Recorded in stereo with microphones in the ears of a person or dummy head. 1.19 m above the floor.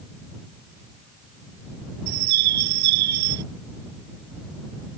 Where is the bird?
80° right.